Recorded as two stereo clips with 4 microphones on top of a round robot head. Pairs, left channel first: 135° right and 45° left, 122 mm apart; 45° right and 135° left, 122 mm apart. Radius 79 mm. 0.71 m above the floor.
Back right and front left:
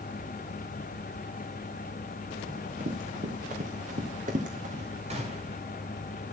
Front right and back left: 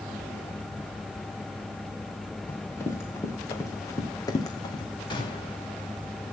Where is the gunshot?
10° left, 5.5 m.